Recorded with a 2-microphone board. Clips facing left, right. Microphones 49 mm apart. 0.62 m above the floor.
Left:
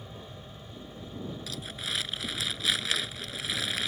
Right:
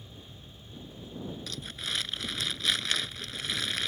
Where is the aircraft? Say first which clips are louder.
Left 5 dB; 40° left (ahead or behind); by 3.9 s 45° left (ahead or behind).